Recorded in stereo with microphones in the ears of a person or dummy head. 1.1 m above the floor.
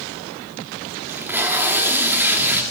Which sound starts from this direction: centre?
Tape being pulled, at 1.1 s.